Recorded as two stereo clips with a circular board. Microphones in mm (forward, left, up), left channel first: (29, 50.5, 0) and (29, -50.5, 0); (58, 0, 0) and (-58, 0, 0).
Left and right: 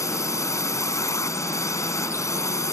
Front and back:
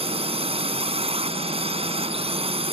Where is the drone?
150° left.